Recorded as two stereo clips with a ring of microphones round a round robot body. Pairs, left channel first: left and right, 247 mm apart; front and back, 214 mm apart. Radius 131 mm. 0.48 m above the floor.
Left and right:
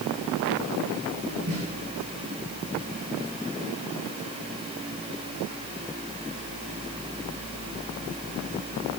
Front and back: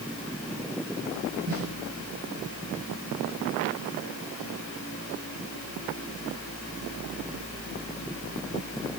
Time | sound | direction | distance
1.5 | a snare drum | 140° right | 8.5 m